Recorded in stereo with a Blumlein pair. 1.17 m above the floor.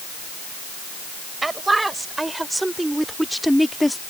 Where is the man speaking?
10° right; by 4.0 s 5° left.